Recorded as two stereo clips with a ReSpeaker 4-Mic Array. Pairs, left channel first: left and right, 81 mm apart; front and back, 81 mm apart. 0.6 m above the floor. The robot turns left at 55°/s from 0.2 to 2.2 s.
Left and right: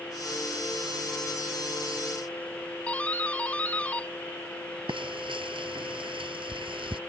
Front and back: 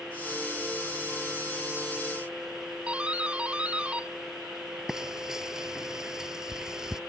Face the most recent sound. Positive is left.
turn(degrees=-95)